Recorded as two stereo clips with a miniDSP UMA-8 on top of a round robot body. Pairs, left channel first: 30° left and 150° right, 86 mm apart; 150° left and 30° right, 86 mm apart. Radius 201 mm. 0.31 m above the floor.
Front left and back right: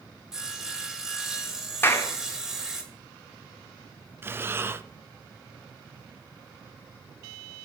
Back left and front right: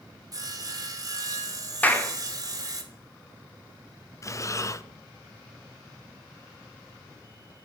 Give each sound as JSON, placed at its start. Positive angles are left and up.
{"t": 0.3, "sound": "sawing", "azimuth_deg": -65, "distance_m": 1.4}
{"t": 1.8, "sound": "a clap", "azimuth_deg": 85, "distance_m": 1.3}
{"t": 4.2, "sound": "breathing", "azimuth_deg": 165, "distance_m": 0.7}